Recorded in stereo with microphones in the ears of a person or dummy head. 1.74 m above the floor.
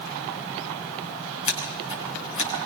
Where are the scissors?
40° left (ahead or behind), 8 m.